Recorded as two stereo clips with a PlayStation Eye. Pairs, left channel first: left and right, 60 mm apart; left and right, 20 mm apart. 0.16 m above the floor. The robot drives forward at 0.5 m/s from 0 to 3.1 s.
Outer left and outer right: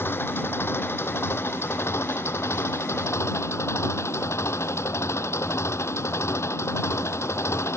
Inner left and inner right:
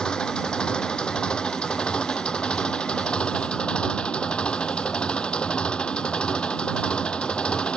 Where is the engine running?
40° left (ahead or behind); by 7.8 s 50° left (ahead or behind).